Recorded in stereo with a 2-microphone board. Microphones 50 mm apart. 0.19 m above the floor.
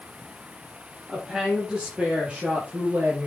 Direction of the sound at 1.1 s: 10° right (ahead or behind).